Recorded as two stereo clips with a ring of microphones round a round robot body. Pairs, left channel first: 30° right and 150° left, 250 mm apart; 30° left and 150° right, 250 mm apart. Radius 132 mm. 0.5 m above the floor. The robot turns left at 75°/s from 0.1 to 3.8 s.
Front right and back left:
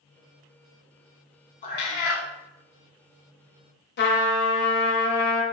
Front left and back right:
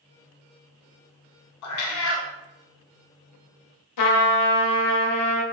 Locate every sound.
1.6 s a cat meowing: 30° left, 0.6 m; by 2.3 s 20° right, 0.6 m
4.0 s a trumpet: 20° left, 0.7 m